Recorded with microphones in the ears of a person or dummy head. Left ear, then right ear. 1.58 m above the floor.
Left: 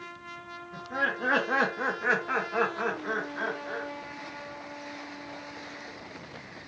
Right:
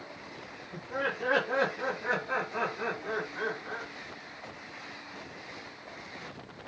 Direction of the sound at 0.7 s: 10° right (ahead or behind).